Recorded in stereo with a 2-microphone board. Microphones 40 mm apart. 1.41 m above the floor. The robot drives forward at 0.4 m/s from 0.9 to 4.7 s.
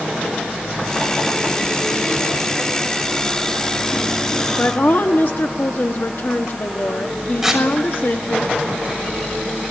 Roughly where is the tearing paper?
Centre.